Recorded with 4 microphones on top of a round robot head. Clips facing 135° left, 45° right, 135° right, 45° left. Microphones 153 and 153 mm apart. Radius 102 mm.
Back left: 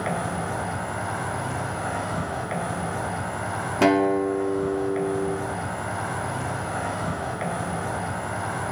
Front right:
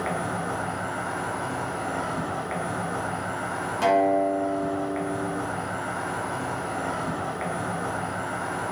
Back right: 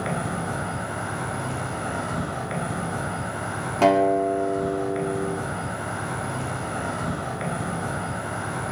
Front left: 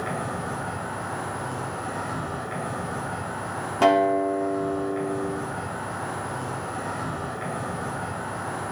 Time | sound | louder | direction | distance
0.0 | an insect | back left 1 dB, back right 2 dB | 165° right | 3.5 m
3.8 | a guitar | back left 1 dB, back right 1 dB | 140° left | 2.5 m